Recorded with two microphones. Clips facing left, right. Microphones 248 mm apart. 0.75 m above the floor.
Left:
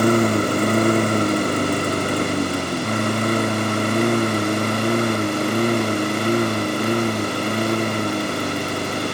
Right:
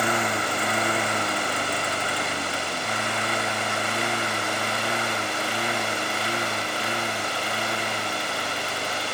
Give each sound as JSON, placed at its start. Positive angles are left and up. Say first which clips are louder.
{"t": 0.0, "sound": "a lawn mower", "louder": "left 11 dB", "side_deg": 45}